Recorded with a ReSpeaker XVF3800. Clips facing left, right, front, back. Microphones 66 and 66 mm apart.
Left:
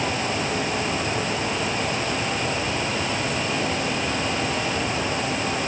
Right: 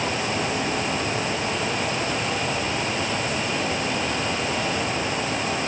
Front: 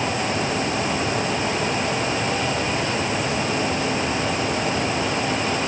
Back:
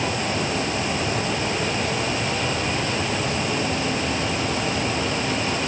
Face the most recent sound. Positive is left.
No sound to turn to.